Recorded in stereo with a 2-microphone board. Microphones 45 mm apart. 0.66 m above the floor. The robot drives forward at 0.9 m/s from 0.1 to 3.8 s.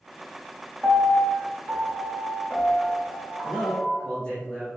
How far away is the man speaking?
About 1.8 m.